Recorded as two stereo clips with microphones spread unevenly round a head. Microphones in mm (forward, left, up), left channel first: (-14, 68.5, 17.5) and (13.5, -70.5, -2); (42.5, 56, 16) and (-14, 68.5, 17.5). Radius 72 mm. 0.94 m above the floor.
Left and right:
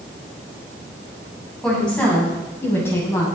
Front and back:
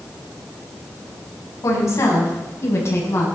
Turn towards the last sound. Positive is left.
turn(degrees=30)